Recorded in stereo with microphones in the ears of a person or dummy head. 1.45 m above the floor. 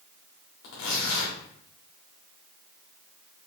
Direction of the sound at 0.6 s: 65° left (ahead or behind).